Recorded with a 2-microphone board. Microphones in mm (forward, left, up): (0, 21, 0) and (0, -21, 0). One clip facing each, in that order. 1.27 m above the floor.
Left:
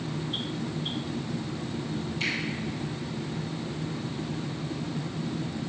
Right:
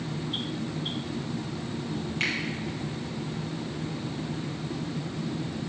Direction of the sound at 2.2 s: 50° right (ahead or behind).